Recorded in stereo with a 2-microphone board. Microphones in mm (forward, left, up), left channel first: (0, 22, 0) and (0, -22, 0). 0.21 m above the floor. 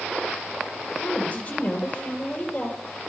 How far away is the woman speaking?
About 5 m.